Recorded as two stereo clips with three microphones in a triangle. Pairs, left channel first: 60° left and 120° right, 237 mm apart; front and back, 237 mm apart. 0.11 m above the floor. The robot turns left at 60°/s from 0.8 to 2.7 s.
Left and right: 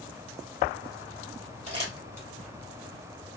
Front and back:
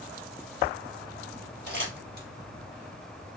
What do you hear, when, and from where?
1.7 s crumpling: 165° right, 1.6 m; by 2.3 s 155° left, 1.6 m